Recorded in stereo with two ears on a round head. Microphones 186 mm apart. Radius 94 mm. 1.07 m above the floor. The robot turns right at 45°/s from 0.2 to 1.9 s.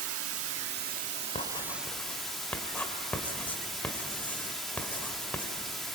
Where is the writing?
35° left (ahead or behind), 2.5 m; by 5.5 s 10° left (ahead or behind), 2.5 m.